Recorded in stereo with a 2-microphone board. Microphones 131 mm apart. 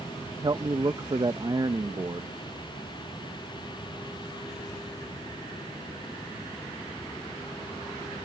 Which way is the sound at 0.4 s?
35° right (ahead or behind).